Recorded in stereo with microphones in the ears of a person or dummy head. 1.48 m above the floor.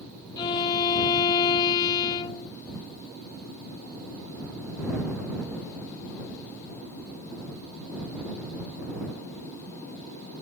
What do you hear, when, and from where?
0.4 s a violin: 25° left (ahead or behind)